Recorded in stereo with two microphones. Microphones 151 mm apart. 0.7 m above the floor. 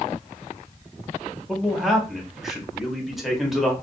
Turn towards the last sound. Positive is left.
turn(degrees=0)  # may be behind; listen again after turning